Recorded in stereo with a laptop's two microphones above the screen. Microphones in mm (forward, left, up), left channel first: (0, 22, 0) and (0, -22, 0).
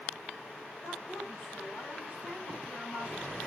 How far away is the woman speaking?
About 8 m.